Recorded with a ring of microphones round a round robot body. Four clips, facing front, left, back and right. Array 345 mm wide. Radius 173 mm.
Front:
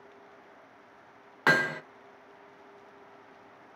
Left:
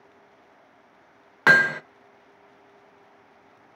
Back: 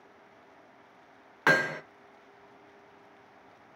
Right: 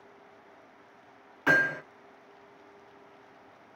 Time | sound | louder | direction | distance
1.5 | hammering | left 7 dB, even | 85° left | 0.6 m